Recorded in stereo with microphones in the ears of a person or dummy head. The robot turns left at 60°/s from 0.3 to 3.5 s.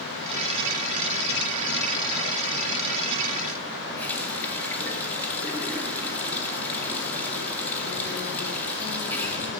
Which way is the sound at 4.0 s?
10° left (ahead or behind).